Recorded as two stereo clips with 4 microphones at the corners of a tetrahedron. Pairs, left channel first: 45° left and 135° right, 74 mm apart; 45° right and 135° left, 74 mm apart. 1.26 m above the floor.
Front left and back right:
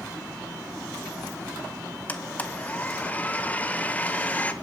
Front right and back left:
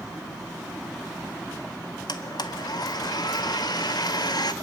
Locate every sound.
2.1 s a blender: 25° right, 1.7 m